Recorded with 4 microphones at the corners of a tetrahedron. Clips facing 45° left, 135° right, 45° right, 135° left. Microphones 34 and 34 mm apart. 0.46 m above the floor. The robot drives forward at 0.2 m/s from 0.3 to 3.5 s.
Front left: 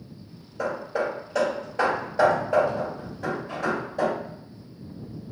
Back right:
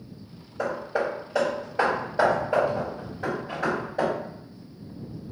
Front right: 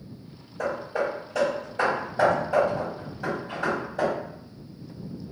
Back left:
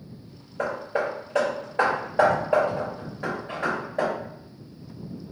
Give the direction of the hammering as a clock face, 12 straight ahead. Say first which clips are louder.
Even, back left 1 dB; 7 o'clock.